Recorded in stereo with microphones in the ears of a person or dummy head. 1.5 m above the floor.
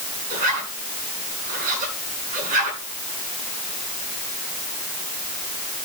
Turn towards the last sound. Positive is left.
turn(degrees=-50)  # may be behind; listen again after turning